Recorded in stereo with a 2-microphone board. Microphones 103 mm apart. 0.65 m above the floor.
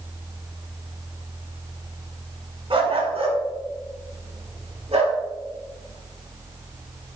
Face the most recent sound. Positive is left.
turn(degrees=-85)